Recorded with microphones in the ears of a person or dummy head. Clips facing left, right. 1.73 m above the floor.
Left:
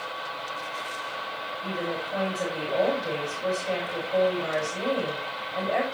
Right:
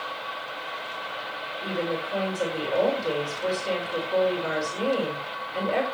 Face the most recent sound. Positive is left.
turn(degrees=-75)  # may be behind; listen again after turning